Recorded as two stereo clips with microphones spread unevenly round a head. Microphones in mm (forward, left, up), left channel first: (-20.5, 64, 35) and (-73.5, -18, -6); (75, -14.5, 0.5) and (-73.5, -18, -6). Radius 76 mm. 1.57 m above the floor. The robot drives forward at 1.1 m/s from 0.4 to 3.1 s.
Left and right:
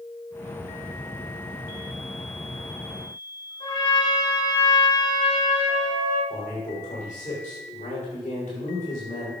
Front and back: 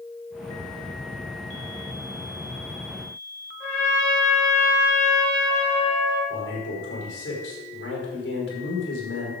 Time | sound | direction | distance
3.6 | a trumpet | 85° left | 5.5 m
6.3 | a man speaking | 20° left | 5 m